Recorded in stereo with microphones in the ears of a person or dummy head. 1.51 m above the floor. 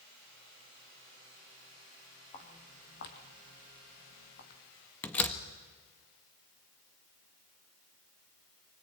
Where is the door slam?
5° left (ahead or behind), 1.4 m.